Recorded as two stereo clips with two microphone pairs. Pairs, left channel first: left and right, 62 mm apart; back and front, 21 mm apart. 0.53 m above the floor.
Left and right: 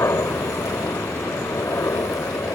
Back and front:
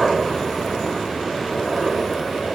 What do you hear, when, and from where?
0.0 s a helicopter: 85° left